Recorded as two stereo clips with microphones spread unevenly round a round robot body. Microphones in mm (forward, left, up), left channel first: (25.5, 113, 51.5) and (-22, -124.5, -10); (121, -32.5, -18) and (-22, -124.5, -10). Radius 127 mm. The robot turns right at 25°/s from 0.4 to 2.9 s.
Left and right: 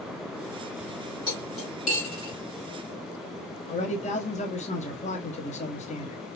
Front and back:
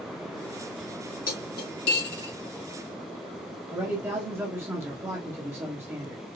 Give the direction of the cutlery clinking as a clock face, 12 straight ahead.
12 o'clock.